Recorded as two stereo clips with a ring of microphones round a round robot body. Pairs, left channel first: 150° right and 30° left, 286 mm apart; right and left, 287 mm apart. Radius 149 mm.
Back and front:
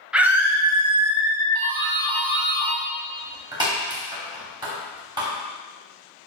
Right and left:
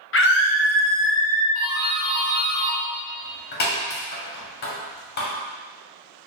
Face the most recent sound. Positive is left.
turn(degrees=-40)